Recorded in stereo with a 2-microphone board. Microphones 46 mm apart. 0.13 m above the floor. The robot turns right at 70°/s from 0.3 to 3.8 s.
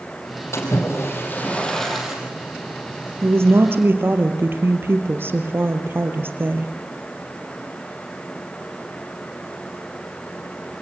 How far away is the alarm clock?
I don't hear an alarm clock.